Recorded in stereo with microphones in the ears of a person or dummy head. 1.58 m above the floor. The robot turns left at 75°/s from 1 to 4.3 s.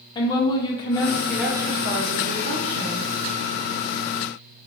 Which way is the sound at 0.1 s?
25° left.